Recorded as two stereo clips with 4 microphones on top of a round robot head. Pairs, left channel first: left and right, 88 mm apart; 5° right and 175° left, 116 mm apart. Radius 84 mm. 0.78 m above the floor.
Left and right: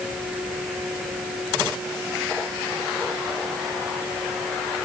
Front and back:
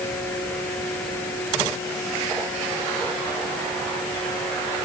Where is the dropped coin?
No dropped coin in this recording.